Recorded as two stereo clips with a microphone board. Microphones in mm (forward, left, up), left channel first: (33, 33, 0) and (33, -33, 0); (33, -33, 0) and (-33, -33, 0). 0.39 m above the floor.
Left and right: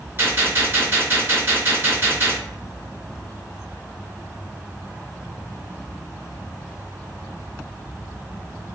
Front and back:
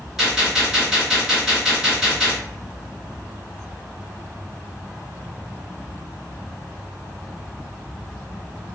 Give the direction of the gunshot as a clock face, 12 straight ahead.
3 o'clock.